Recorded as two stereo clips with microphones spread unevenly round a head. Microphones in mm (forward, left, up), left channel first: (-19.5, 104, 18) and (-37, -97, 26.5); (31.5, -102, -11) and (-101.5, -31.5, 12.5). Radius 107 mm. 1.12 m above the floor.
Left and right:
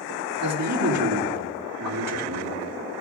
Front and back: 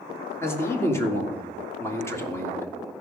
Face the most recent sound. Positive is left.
turn(degrees=-100)